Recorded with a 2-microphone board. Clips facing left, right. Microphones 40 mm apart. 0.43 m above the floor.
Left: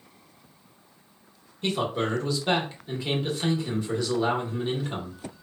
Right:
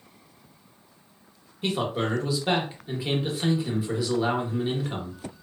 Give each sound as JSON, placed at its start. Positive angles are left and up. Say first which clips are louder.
{"t": 1.6, "sound": "a man speaking", "louder": "even", "side_deg": -10, "distance_m": 0.9}